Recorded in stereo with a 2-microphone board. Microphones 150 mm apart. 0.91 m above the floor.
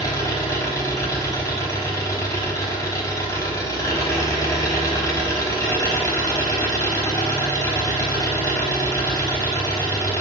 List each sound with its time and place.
0.0 s an engine running: 20° left (ahead or behind), 5 m